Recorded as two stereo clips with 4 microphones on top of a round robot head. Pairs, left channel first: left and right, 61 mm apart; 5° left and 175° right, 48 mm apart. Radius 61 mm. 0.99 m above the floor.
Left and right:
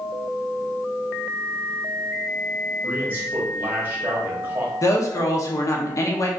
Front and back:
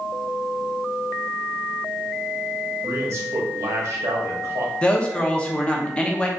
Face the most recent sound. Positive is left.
turn(degrees=70)